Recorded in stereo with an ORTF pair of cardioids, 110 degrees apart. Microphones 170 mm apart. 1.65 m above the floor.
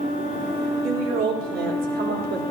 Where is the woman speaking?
65° right, 4.5 m; by 2.4 s 70° right, 5 m.